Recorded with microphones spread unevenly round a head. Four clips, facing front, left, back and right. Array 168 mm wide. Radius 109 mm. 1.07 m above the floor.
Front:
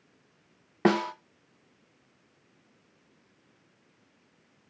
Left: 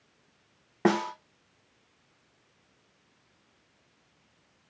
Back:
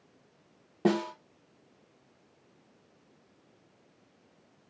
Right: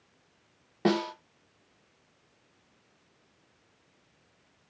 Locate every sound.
0.8 s a snare drum: 20° left, 0.8 m